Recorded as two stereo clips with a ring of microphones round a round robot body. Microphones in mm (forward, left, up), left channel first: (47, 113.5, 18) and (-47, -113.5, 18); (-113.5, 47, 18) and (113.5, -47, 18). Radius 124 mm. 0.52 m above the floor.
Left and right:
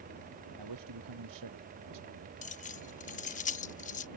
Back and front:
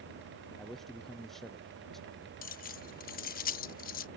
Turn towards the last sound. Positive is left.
turn(degrees=115)